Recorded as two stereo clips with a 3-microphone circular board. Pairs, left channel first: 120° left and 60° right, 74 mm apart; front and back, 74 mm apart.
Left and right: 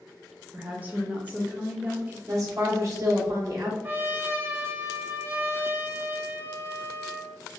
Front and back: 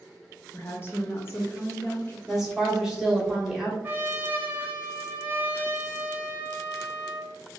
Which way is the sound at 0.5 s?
10° right.